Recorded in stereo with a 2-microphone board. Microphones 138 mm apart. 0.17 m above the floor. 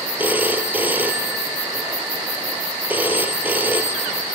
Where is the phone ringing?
15° right (ahead or behind), 2 m.